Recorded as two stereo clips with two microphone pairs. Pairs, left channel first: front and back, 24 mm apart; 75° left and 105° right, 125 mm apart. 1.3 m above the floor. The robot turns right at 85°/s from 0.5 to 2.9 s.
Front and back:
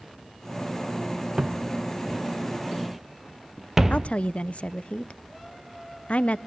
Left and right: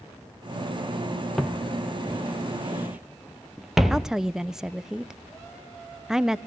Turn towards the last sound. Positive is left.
turn(degrees=-20)